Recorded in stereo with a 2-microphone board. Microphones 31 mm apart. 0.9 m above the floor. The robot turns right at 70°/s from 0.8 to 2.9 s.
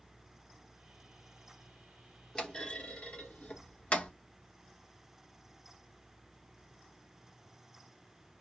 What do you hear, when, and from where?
2.4 s a clunk: 20° left (ahead or behind), 1.1 m; by 4.1 s 45° left (ahead or behind), 1.1 m